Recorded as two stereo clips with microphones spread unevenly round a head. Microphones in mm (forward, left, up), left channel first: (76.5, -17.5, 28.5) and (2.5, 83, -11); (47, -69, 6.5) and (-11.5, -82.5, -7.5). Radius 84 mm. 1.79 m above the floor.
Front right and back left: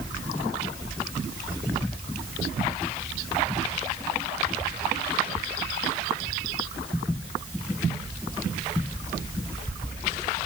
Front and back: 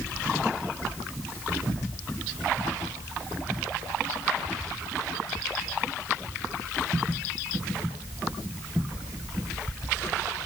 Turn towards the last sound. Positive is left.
No sound to turn to.